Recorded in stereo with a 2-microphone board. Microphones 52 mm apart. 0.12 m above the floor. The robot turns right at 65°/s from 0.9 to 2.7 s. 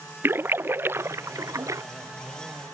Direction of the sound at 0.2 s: 45° right (ahead or behind).